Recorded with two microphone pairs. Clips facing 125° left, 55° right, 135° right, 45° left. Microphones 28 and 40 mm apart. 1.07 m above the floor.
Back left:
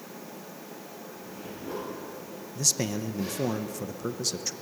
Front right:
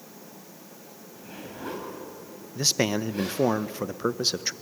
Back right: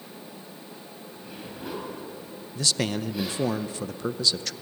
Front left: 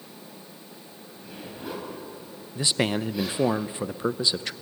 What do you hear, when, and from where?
1.1 s a zipper: 45° right, 9 m
2.5 s a man speaking: 15° right, 0.7 m